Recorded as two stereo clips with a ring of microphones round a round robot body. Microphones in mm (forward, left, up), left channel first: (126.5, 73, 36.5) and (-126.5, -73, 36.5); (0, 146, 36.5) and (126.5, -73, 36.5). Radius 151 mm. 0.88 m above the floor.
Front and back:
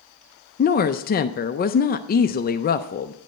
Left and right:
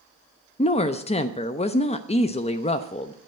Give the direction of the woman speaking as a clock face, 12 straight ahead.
10 o'clock.